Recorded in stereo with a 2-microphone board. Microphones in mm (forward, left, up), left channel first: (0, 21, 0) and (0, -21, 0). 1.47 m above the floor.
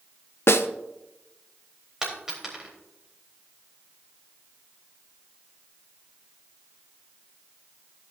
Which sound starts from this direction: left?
A snare drum, at 0.5 s.